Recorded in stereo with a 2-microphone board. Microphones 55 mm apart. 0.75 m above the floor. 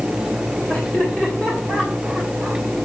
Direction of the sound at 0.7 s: 15° left (ahead or behind).